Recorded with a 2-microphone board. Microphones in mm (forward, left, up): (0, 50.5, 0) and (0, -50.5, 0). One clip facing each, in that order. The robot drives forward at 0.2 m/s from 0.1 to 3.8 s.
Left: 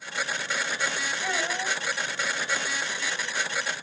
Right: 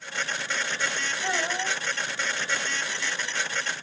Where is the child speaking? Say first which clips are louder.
Right 2 dB; 5° left (ahead or behind), 3 m.